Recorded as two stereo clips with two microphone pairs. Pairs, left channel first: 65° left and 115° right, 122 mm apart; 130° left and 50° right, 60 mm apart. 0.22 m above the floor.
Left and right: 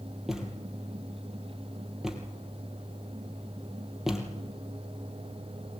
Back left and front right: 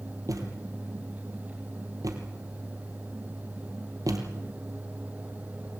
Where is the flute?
I don't hear a flute.